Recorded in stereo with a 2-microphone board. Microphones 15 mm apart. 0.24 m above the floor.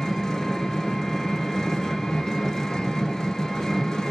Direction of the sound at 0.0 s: 30° left (ahead or behind).